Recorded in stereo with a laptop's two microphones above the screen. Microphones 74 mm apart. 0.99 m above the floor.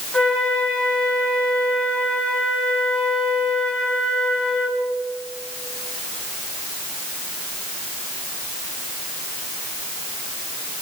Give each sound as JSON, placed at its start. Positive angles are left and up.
{"t": 0.1, "sound": "a flute", "side_deg": 10, "distance_m": 2.5}